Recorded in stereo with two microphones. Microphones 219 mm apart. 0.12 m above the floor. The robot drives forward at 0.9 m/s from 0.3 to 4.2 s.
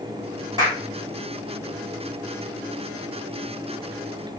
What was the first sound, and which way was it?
A clap, 20° right (ahead or behind).